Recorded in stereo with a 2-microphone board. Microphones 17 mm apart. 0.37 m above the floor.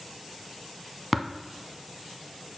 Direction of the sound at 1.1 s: 15° right (ahead or behind).